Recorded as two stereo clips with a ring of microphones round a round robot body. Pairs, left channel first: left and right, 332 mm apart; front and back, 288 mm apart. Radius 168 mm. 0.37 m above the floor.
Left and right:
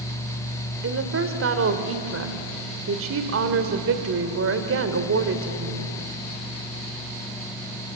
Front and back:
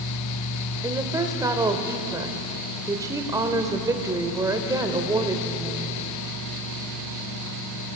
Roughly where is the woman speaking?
Right.